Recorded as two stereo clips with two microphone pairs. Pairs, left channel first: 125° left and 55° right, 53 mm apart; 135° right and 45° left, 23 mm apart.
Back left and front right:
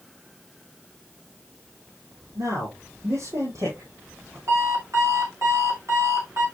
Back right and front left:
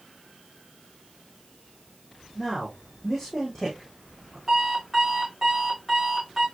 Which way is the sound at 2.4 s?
50° right.